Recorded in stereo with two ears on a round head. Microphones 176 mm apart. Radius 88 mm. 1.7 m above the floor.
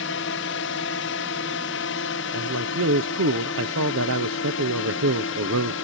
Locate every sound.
0.0 s a drone: 65° left (ahead or behind); by 5.9 s 70° left (ahead or behind)
2.3 s a man speaking: 75° right (ahead or behind)